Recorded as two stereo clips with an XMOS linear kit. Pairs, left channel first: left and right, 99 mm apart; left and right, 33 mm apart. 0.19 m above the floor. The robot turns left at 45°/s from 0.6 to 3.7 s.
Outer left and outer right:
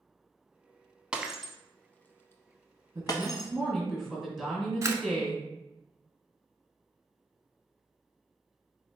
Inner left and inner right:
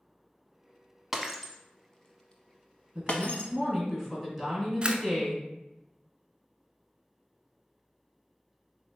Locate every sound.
1.1 s breaking glass: 10° right (ahead or behind), 0.6 m; by 3.5 s 45° left (ahead or behind), 0.6 m
3.0 s a woman speaking: 150° right, 1.8 m; by 5.4 s 175° left, 1.8 m
4.8 s a camera shutter: 30° right (ahead or behind), 0.5 m